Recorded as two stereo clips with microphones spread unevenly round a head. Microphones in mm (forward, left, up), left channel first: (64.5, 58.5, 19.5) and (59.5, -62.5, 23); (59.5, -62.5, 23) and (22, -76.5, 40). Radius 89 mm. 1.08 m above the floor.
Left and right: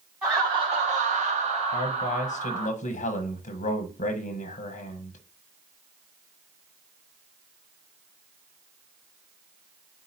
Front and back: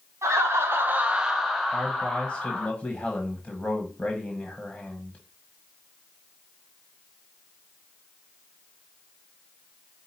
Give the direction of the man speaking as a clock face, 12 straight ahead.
9 o'clock.